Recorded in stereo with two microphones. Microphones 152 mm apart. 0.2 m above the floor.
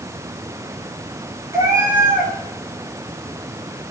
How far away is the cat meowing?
About 9 m.